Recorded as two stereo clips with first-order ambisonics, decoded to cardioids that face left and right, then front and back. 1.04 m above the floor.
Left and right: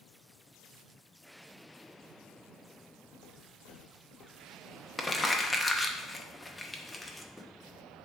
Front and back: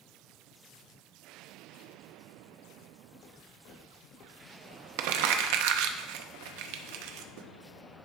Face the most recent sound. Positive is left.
turn(degrees=175)